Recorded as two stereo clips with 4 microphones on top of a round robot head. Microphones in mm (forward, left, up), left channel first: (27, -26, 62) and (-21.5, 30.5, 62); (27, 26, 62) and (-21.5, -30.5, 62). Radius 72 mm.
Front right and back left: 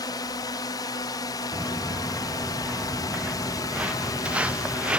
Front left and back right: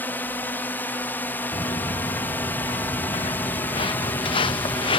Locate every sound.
0.0 s a drone: 15° right
1.5 s footsteps: 60° left; by 5.0 s 55° left